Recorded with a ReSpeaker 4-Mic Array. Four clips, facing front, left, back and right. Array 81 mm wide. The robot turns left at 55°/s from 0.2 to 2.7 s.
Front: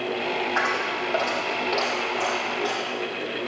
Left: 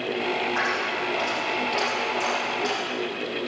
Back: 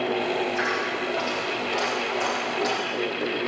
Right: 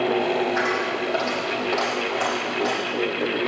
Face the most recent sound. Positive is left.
turn(degrees=-115)